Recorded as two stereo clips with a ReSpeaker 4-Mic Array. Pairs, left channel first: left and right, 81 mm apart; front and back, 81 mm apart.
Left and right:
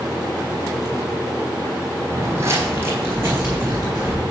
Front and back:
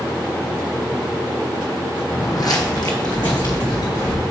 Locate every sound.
2.1 s footsteps: 40° right, 0.9 m; by 4.2 s 25° right, 2.5 m